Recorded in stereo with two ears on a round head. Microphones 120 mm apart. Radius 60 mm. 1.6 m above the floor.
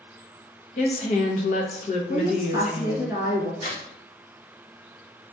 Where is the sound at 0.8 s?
50° left (ahead or behind), 0.7 m.